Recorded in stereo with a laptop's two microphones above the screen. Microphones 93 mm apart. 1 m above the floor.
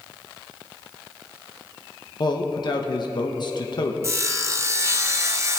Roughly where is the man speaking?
Left.